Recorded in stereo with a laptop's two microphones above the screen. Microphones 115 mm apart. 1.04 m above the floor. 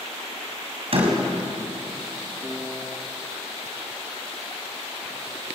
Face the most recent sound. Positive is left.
turn(degrees=0)  # may be behind; listen again after turning